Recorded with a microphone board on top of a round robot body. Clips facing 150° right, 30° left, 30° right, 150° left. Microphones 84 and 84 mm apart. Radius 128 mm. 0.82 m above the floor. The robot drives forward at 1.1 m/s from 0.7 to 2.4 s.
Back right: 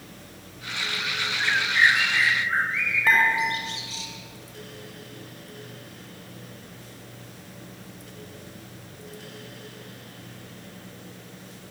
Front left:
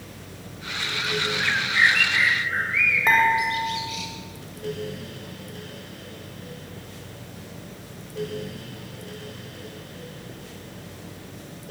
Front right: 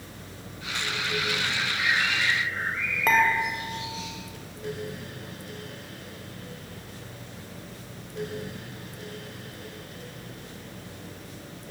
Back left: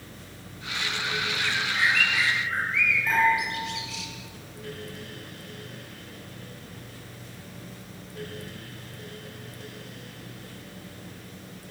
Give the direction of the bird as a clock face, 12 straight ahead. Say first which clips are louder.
Back right 1 dB, back left 2 dB; 8 o'clock.